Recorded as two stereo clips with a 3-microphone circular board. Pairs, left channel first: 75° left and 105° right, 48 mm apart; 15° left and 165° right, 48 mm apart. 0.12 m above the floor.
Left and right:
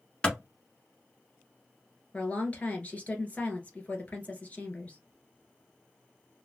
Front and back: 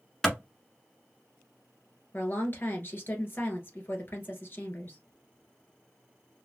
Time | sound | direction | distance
0.2 | a clap | 85° left | 1.2 m
2.1 | a woman speaking | 25° left | 1.7 m